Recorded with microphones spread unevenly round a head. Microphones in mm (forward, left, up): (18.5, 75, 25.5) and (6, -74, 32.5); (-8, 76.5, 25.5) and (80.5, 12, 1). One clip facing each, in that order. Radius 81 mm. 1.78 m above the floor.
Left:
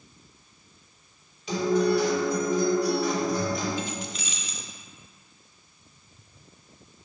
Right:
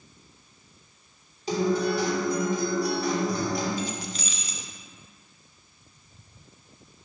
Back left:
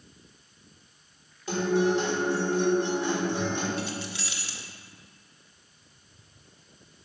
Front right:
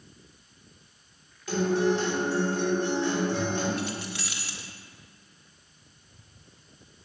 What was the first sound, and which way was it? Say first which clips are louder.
A guitar: left 2 dB, even; 150° right.